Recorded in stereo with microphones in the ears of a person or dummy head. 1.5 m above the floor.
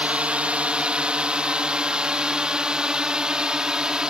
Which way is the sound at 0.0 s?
5° right (ahead or behind).